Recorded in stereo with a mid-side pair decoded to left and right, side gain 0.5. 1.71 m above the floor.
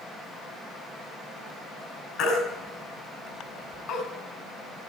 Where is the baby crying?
70° left, 5 m.